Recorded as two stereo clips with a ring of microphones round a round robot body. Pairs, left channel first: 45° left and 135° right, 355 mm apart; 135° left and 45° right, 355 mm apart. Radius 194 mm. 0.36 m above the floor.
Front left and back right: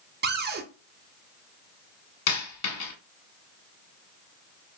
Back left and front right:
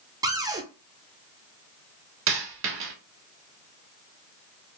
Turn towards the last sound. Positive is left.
turn(degrees=10)